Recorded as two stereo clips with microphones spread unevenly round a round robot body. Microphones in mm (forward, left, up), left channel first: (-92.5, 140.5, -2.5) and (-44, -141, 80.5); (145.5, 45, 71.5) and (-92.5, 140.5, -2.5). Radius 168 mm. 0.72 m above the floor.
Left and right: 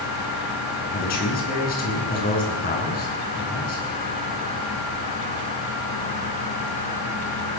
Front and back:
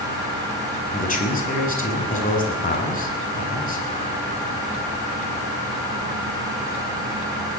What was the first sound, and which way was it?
A man speaking, 40° left.